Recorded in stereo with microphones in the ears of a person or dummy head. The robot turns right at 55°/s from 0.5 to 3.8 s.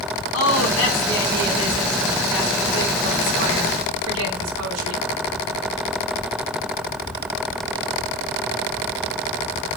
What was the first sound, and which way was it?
A woman speaking, 90° left.